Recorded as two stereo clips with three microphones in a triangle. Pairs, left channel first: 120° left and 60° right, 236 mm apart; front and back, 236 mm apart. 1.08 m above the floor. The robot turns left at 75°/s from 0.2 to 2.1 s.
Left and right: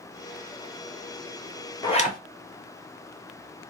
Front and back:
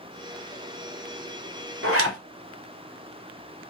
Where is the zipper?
165° right, 1.0 m; by 2.2 s 175° left, 1.0 m.